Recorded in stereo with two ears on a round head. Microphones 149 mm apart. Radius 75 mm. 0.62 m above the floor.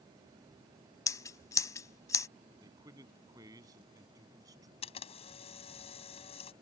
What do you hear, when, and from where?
1.1 s scissors: 20° left (ahead or behind)
2.6 s a man speaking: 20° right (ahead or behind)
4.8 s a camera shutter: 40° left (ahead or behind)